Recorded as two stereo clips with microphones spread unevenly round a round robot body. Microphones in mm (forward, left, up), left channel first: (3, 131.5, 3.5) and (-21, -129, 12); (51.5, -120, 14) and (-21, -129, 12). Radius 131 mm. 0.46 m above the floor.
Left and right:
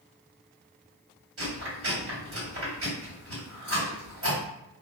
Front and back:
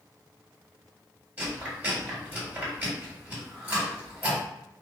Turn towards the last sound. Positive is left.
turn(degrees=-115)